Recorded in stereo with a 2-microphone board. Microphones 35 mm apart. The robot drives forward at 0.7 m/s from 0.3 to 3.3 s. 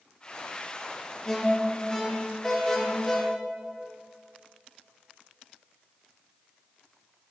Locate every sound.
1.2 s an alarm: 15° left (ahead or behind), 1.1 m; by 3.2 s 10° left (ahead or behind), 1.9 m